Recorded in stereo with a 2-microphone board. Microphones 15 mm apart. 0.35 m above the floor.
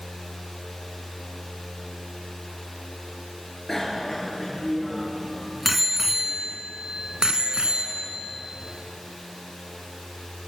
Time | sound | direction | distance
3.7 | a bicycle bell | 25° left (ahead or behind) | 4.5 m